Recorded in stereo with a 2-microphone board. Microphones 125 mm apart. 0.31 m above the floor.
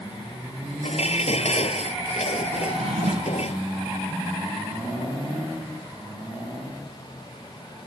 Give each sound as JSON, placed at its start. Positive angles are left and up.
{"t": 0.8, "sound": "dishes clattering", "side_deg": 65}
{"t": 2.6, "sound": "a drawer", "side_deg": -65}